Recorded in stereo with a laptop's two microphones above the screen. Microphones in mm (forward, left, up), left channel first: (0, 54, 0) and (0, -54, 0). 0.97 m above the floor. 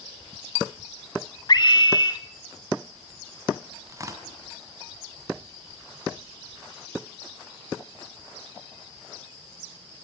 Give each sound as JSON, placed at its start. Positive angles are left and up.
{"t": 1.5, "sound": "a scream", "side_deg": 40, "distance_m": 2.0}
{"t": 3.9, "sound": "tearing paper", "side_deg": -30, "distance_m": 2.5}